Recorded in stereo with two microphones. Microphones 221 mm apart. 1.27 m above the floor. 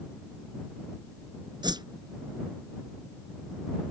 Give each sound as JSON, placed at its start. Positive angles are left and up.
{"t": 1.6, "sound": "a whoosh", "side_deg": -20}